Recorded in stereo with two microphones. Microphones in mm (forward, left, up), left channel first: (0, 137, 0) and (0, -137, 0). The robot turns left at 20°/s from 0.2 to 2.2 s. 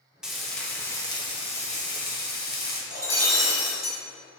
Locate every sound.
0.2 s frying: 175° right, 1.4 m; by 2.8 s 145° left, 1.4 m
2.9 s breaking glass: 60° left (ahead or behind), 2 m